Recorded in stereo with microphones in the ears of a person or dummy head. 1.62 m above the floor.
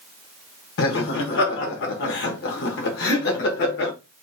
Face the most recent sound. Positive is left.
turn(degrees=65)  # may be behind; listen again after turning